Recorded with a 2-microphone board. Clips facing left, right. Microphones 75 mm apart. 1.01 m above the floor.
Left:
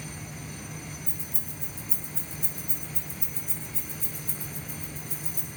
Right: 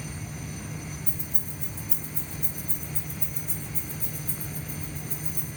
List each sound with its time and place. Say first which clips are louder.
1.1 s keys jangling: right 2 dB; 75° right (ahead or behind), 5 m; by 5.5 s 45° right (ahead or behind), 7.5 m